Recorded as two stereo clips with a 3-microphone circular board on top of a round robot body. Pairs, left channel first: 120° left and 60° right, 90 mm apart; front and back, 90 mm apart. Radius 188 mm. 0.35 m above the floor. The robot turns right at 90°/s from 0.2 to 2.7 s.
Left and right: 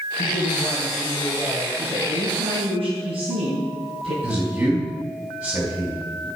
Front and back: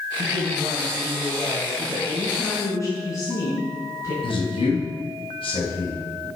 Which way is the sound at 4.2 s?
5° left.